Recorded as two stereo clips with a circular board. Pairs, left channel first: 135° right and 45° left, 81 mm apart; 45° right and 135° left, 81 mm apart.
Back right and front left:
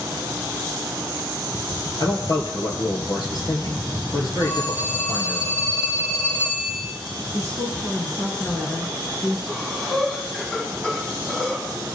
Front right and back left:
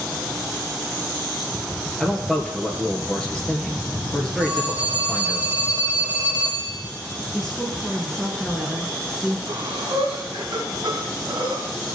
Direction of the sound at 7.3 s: 120° right.